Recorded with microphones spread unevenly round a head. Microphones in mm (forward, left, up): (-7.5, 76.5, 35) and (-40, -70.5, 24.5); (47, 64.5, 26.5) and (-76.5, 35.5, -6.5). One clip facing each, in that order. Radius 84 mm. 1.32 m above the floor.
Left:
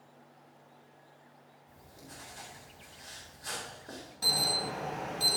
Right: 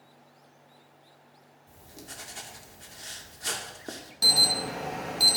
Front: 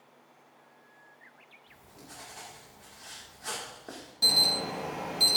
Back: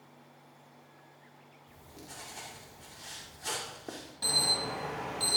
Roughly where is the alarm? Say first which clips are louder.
Right 3 dB, front 2 dB; ahead right.